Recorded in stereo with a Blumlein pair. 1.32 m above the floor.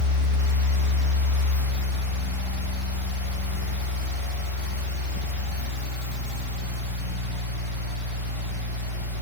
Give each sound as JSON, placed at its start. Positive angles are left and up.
{"t": 0.0, "sound": "a fan", "azimuth_deg": 65, "distance_m": 1.2}